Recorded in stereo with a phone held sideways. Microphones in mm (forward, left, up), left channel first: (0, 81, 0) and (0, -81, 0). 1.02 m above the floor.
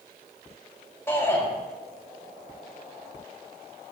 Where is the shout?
15° left (ahead or behind), 6 m.